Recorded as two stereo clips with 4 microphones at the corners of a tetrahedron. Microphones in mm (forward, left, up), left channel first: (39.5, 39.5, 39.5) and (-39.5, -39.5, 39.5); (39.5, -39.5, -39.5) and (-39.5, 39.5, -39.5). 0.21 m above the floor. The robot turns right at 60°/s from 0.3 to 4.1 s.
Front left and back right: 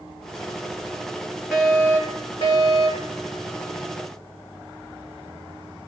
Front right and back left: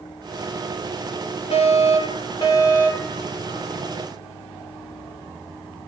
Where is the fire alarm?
50° right, 7.5 m; by 3.2 s 50° left, 7.5 m.